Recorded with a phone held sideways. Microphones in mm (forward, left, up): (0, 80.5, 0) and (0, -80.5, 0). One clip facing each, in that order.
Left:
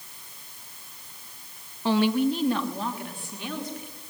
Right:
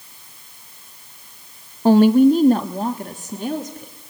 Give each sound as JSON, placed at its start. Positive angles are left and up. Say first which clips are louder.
{"t": 1.9, "sound": "a woman speaking", "louder": "right 11 dB", "side_deg": -45, "distance_m": 0.5}